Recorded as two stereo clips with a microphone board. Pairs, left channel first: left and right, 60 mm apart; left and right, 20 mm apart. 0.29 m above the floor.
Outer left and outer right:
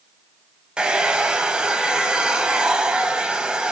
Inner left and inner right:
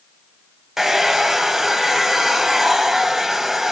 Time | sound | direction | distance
0.8 | a hair dryer | 15° right (ahead or behind) | 0.5 m